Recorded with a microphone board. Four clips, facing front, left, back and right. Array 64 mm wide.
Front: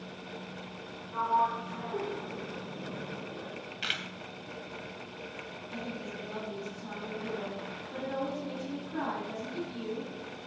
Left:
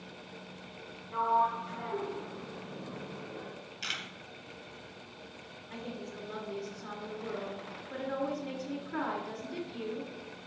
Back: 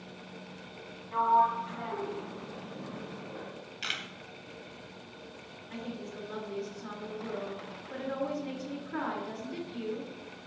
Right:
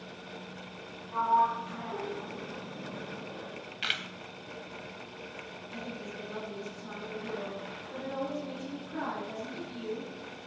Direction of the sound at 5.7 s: 135° left.